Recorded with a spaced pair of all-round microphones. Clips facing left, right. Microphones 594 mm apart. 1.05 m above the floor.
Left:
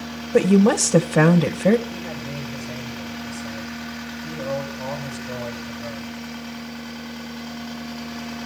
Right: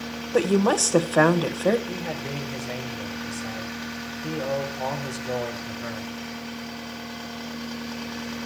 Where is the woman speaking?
50° left (ahead or behind), 1.0 m.